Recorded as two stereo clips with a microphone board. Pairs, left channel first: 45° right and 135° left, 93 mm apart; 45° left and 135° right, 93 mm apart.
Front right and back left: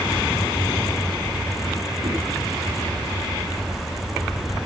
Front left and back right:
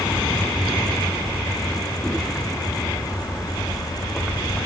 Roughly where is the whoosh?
Behind left.